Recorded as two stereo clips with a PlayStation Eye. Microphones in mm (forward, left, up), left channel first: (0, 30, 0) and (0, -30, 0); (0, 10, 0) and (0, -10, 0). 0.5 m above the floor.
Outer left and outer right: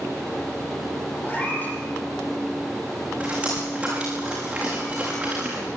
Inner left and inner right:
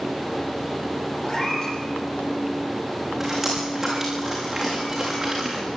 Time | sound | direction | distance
1.2 | a cat meowing | 25° left (ahead or behind) | 5.5 m
3.2 | dripping | 20° right (ahead or behind) | 8 m